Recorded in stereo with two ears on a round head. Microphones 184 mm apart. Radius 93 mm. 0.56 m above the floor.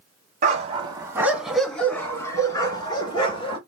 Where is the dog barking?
40° right (ahead or behind), 1.3 m; by 3.6 s 25° left (ahead or behind), 3 m.